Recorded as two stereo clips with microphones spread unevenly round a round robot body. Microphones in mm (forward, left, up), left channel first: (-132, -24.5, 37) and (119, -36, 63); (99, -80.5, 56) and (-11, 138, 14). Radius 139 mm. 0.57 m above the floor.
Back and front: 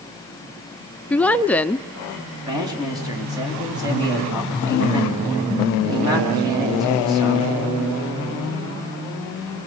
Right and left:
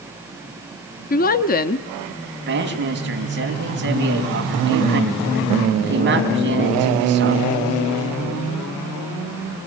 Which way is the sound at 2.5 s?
75° left.